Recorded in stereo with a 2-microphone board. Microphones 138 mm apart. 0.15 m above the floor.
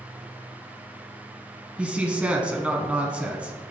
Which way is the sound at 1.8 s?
10° right (ahead or behind).